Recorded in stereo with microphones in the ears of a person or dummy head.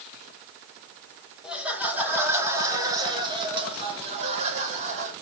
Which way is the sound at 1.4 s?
5° right (ahead or behind).